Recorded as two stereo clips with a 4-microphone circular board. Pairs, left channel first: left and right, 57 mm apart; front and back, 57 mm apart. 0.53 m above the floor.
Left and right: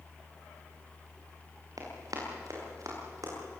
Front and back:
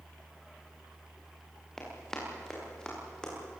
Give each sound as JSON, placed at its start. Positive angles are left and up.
{"t": 1.8, "sound": "running footsteps", "azimuth_deg": -80, "distance_m": 8.0}